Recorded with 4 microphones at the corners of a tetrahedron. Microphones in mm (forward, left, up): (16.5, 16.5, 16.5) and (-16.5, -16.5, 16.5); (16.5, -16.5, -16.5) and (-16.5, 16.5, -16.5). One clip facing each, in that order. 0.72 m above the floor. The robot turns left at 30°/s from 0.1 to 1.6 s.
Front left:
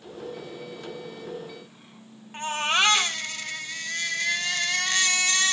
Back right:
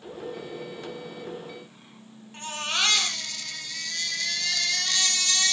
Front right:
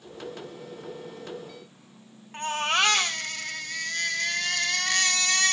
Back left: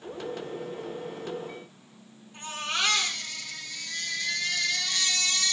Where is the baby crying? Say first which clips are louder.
Front left 5 dB, front right 6 dB; 15° right, 3.5 m.